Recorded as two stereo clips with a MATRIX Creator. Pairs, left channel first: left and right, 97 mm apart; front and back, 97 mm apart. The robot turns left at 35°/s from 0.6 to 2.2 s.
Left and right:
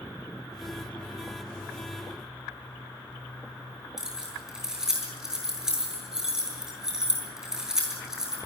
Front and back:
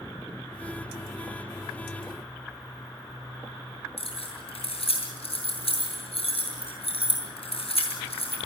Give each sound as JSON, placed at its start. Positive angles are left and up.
{"t": 4.0, "sound": "keys jangling", "azimuth_deg": -5, "distance_m": 7.5}